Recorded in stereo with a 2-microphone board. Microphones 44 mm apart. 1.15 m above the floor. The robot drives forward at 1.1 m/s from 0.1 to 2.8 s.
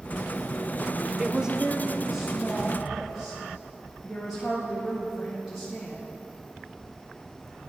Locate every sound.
1.2 s a woman speaking: 15° right (ahead or behind), 0.5 m; by 6.1 s 5° right (ahead or behind), 1.7 m